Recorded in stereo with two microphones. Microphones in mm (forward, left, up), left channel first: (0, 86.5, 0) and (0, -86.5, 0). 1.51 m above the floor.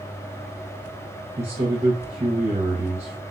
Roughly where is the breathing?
I don't hear breathing.